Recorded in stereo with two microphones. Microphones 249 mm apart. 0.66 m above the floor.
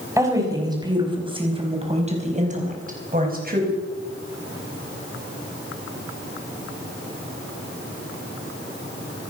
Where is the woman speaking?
10° right (ahead or behind), 5 m; by 3.7 s 40° right (ahead or behind), 4.5 m.